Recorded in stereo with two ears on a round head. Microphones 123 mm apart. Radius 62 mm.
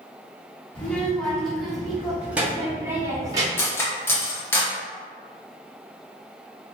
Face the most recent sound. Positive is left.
turn(degrees=20)  # may be behind; listen again after turning